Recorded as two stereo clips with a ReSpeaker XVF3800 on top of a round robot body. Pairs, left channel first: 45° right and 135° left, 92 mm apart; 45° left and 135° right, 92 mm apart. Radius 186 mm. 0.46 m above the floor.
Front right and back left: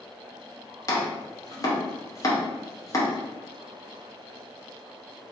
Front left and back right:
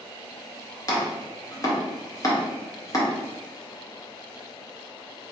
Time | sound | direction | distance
0.9 | chopping | straight ahead | 1.6 m